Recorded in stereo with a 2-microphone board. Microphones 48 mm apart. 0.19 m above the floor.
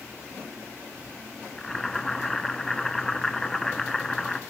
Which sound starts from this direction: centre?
Boiling, at 1.6 s.